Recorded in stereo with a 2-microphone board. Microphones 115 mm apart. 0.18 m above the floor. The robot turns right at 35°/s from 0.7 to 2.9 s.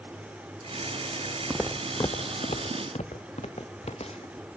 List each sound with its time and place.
1.5 s footsteps: 20° right (ahead or behind), 0.6 m; by 4.3 s 65° left (ahead or behind), 2.5 m